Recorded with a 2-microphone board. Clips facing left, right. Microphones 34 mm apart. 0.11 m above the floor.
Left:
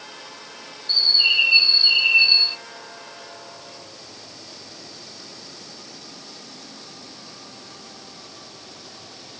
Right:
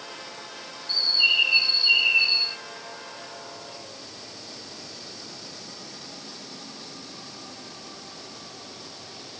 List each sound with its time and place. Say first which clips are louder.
0.9 s a bird: left 3 dB; 55° left (ahead or behind), 0.9 m